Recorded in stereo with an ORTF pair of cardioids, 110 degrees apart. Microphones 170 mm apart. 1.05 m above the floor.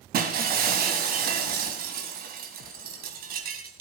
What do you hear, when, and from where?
0.1 s breaking glass: 60° right, 2.5 m